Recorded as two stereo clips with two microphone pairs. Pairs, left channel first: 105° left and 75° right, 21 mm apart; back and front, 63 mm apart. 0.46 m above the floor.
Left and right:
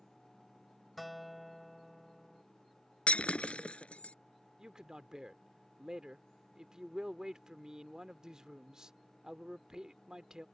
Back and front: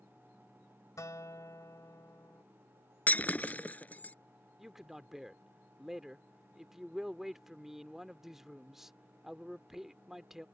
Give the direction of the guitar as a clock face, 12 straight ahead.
5 o'clock.